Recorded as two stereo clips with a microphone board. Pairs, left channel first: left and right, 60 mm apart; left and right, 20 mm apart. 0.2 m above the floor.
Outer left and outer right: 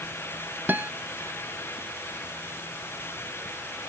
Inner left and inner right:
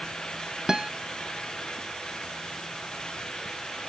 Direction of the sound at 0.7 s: 30° right (ahead or behind).